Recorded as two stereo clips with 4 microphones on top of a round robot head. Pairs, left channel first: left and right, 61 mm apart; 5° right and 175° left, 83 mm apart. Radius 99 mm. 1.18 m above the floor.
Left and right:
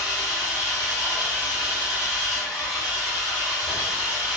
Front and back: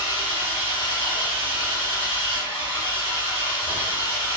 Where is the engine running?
5° right, 0.9 m.